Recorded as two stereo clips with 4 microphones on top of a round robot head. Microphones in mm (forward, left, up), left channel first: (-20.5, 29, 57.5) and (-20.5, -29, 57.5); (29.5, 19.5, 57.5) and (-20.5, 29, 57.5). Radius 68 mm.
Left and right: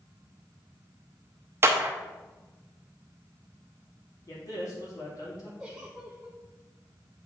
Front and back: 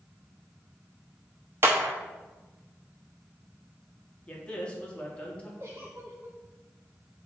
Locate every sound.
1.6 s a clap: 140° right, 0.8 m
4.3 s a man speaking: 55° left, 2.5 m
5.6 s a giggle: 160° right, 0.9 m